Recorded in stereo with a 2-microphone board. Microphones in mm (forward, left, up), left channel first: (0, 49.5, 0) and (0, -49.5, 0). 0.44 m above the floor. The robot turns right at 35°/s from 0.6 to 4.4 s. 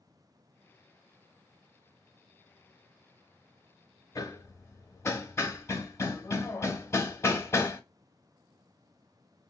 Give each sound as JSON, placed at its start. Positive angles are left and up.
{"t": 4.2, "sound": "hammering", "side_deg": 35, "distance_m": 0.7}